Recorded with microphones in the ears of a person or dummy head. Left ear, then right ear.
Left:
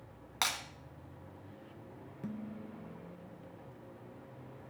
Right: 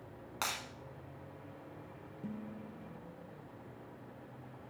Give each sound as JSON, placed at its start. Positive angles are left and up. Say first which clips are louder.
{"t": 0.4, "sound": "breaking glass", "louder": "left 4 dB", "side_deg": 20, "distance_m": 1.5}
{"t": 2.2, "sound": "dishes clattering", "louder": "left 2 dB", "side_deg": 35, "distance_m": 0.9}